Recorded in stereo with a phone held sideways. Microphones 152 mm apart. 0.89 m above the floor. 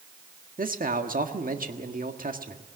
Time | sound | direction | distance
0.6 | a man speaking | 65° right (ahead or behind) | 1.6 m